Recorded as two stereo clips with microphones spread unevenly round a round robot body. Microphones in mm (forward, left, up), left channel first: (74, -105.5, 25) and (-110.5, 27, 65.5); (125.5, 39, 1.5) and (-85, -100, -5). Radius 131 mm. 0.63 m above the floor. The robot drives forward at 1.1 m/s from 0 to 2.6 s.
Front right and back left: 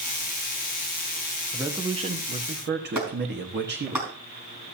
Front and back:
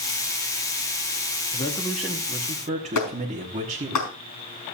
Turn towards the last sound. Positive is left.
turn(degrees=65)